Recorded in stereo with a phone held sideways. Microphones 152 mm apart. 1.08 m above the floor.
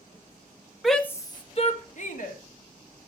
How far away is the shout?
About 1.5 m.